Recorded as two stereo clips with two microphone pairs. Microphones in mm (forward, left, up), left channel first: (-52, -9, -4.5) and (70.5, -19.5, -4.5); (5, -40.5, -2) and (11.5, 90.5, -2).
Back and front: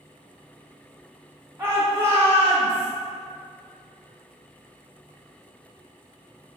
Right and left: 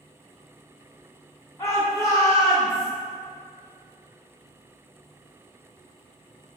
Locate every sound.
1.6 s a shout: 55° right, 1.1 m